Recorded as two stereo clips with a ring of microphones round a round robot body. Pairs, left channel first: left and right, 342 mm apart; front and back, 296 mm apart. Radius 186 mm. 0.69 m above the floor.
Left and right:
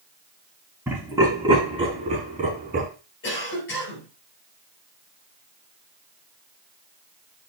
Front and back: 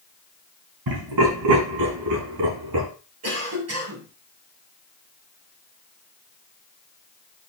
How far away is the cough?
About 7 m.